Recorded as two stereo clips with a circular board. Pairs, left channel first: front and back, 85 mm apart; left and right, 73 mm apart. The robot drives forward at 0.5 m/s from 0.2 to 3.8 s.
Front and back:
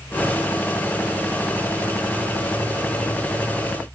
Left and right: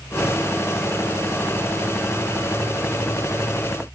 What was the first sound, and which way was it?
Only background noise.